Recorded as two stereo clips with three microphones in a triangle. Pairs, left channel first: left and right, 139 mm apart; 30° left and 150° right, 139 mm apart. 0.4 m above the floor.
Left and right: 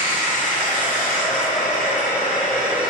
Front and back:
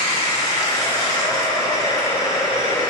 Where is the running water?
95° left, 2 m.